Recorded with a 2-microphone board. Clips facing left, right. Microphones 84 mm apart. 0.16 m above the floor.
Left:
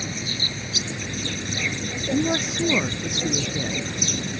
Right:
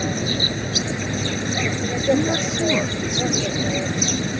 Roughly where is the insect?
Right.